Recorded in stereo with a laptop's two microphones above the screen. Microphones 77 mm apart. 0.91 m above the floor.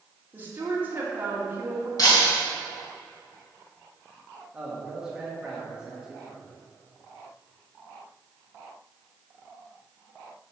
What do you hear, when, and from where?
0.3 s a woman speaking: 25° right (ahead or behind), 1.9 m
2.0 s breaking glass: 50° left (ahead or behind), 3 m
4.5 s a man speaking: 10° right (ahead or behind), 1.7 m